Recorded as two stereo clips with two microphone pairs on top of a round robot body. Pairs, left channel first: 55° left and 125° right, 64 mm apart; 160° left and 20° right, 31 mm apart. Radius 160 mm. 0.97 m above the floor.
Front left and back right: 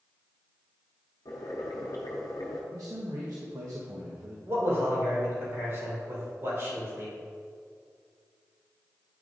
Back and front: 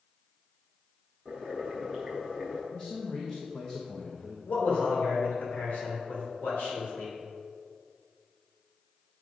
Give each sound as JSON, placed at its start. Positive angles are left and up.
{"t": 1.2, "sound": "boiling", "azimuth_deg": 80, "distance_m": 0.7}
{"t": 2.7, "sound": "a man speaking", "azimuth_deg": -130, "distance_m": 1.2}
{"t": 4.5, "sound": "a man speaking", "azimuth_deg": -170, "distance_m": 3.0}